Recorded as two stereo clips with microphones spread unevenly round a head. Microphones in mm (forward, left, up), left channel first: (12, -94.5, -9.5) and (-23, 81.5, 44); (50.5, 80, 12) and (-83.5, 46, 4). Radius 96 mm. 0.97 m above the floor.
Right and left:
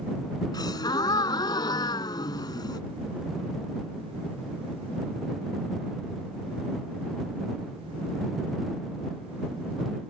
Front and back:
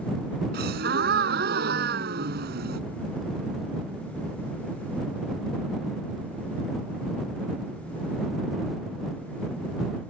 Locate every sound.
0.5 s a gasp: 155° right